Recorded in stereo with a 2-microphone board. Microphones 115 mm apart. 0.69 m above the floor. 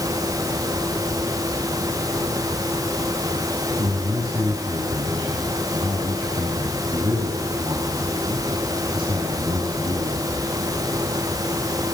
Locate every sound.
3.8 s a man speaking: 50° right (ahead or behind), 6.5 m